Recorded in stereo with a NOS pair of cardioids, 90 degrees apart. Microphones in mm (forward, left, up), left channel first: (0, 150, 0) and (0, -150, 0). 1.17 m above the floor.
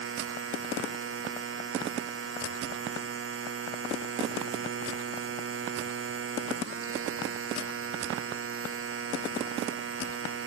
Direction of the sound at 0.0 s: 45° right.